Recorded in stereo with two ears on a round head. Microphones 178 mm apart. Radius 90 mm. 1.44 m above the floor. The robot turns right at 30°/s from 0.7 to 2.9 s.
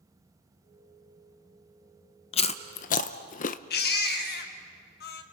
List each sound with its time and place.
2.3 s chewing: 30° left (ahead or behind), 0.6 m; by 3.6 s 40° left (ahead or behind), 0.6 m
3.7 s a baby crying: 55° left (ahead or behind), 1.4 m